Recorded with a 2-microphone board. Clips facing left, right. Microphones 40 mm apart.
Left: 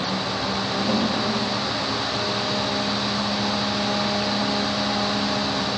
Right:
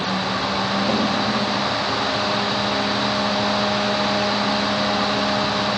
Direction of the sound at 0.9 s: 20° right (ahead or behind).